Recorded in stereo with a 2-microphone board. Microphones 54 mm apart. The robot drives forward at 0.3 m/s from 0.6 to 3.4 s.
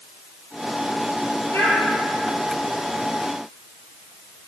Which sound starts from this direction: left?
A child speaking, at 1.5 s.